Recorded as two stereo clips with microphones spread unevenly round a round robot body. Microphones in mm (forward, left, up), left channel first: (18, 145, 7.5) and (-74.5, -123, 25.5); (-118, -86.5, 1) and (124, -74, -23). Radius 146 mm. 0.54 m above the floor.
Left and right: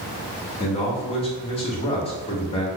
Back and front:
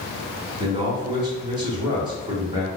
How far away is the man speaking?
About 0.8 m.